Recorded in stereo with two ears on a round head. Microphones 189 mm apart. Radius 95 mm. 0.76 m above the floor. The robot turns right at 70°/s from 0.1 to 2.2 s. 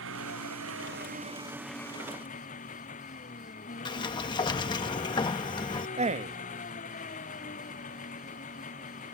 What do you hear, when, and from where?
0.0 s an engine running: 110° right; by 9.2 s 35° left
3.9 s a sliding door: 20° left (ahead or behind)
6.0 s a man speaking: 30° right (ahead or behind)